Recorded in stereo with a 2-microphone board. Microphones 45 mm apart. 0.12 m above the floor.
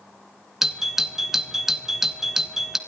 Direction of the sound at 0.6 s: 10° right (ahead or behind).